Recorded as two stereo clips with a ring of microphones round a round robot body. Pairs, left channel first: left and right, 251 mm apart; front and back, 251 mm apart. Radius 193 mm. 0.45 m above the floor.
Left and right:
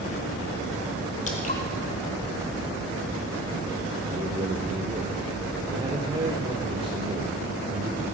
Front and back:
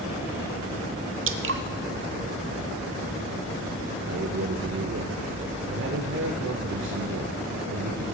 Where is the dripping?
150° left, 1.0 m.